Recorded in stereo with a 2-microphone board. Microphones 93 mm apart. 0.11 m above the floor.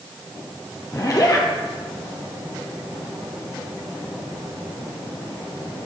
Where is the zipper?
40° left (ahead or behind), 1.6 m.